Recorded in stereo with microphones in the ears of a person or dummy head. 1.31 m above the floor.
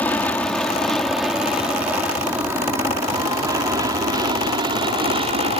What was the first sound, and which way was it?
An aircraft, 15° left (ahead or behind).